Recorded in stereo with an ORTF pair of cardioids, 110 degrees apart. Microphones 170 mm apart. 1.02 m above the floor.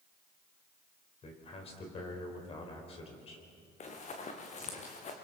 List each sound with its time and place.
1.2 s a man speaking: 35° left, 4.5 m
3.8 s running footsteps: 45° left, 3.5 m